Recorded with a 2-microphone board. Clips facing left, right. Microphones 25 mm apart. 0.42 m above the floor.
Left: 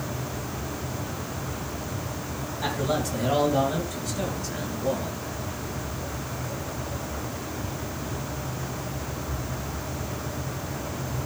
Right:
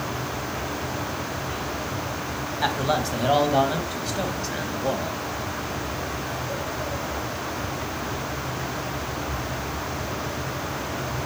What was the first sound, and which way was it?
A man speaking, 45° right (ahead or behind).